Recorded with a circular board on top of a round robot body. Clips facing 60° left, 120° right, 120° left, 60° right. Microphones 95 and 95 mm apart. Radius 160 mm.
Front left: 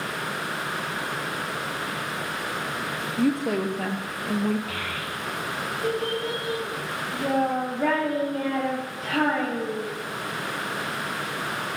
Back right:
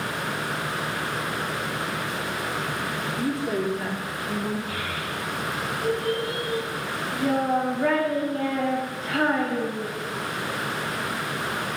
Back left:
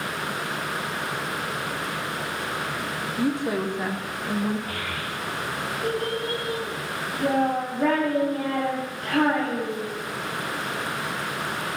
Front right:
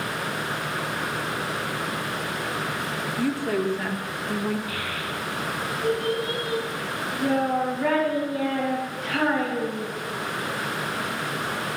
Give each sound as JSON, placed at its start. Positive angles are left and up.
{"t": 3.2, "sound": "a woman speaking", "azimuth_deg": 45, "distance_m": 2.0}
{"t": 4.7, "sound": "a child speaking", "azimuth_deg": 70, "distance_m": 4.5}